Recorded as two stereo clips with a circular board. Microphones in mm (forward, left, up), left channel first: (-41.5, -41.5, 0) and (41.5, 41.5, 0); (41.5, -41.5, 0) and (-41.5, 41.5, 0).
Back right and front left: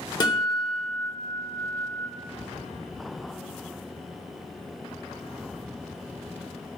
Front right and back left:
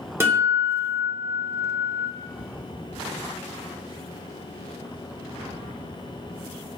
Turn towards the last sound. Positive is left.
turn(degrees=-165)